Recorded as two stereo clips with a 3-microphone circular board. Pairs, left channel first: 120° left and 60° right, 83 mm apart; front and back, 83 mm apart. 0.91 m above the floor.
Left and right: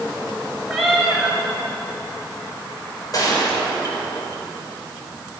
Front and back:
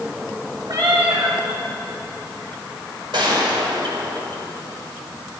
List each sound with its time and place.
0.7 s a cat meowing: 150° right, 5 m
3.1 s a gunshot: 160° left, 4.5 m